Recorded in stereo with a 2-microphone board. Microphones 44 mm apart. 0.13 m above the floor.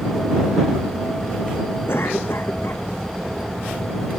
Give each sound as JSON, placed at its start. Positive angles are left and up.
{"t": 1.9, "sound": "a cough", "side_deg": 55}